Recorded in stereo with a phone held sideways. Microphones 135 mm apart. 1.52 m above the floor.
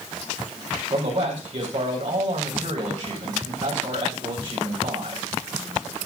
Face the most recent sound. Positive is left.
turn(degrees=-40)  # may be behind; listen again after turning